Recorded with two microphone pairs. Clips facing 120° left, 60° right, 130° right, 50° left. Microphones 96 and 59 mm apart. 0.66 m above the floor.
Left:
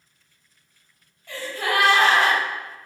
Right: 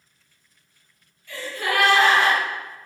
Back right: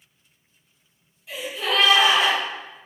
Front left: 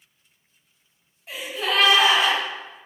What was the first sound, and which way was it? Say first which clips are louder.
A gasp: left 1 dB, even; 95° left.